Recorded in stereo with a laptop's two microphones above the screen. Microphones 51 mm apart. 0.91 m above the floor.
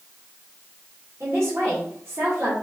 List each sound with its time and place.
1.2 s a man speaking: 55° right (ahead or behind), 2 m